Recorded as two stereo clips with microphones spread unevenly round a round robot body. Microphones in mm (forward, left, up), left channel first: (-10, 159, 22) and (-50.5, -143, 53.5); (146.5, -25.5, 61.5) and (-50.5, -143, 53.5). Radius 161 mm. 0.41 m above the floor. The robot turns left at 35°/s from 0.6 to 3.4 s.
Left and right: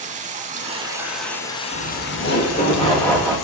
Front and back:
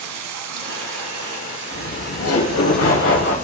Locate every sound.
0.0 s running water: 165° right, 1.1 m; by 3.5 s 95° left, 1.1 m
1.7 s laughter: 50° left, 2.5 m; by 3.4 s 10° right, 2.5 m